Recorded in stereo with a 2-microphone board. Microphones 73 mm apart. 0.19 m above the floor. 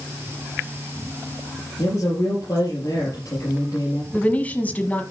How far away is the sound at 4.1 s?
About 1.1 m.